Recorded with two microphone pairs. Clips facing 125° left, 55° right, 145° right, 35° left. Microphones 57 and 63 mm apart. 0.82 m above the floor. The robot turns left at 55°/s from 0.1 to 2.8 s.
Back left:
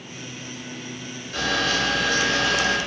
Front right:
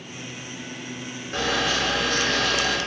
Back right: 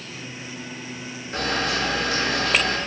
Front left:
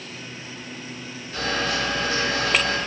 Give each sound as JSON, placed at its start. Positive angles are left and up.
{"t": 1.3, "sound": "a camera shutter", "azimuth_deg": -100, "distance_m": 0.8}